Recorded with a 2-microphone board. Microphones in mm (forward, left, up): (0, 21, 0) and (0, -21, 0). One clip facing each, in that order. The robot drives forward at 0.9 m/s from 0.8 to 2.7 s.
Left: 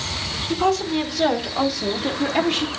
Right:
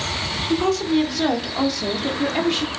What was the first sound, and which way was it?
A woman speaking, 5° left (ahead or behind).